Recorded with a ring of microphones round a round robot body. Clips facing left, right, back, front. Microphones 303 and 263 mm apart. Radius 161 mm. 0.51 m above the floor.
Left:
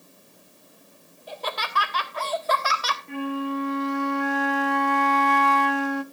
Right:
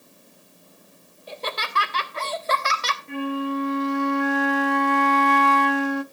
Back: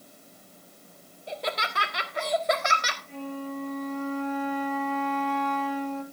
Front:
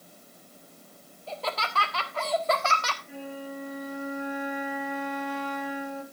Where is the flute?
80° right, 0.5 m.